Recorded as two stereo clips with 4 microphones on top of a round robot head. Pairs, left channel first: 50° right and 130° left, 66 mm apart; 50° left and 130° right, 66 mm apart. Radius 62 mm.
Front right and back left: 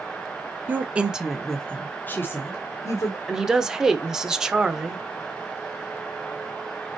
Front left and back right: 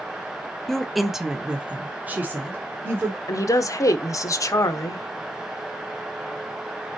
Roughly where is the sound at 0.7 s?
Behind left.